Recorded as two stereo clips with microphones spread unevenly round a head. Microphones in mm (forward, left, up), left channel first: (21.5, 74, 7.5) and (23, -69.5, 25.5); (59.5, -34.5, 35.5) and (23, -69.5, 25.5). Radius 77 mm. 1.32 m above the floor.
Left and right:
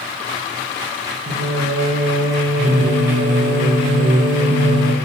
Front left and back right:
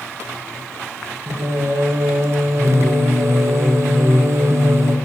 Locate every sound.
1.3 s singing: 105° right, 1.5 m